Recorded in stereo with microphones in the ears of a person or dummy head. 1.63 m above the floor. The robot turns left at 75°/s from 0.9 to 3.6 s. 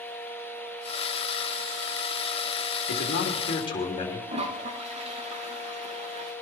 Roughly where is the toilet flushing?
Right.